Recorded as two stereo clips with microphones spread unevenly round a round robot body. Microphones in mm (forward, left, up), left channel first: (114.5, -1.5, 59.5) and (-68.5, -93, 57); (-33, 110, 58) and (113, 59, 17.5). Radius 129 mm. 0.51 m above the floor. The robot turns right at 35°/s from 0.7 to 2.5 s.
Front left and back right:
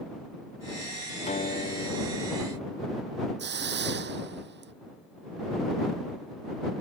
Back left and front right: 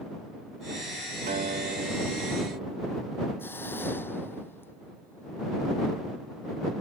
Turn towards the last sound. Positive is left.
turn(degrees=-120)